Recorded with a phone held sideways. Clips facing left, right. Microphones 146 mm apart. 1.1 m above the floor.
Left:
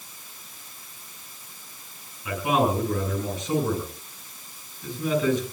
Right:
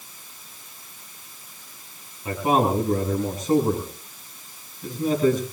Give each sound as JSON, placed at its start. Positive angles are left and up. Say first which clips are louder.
{"t": 2.2, "sound": "a man speaking", "louder": "right 2 dB", "side_deg": -45, "distance_m": 8.0}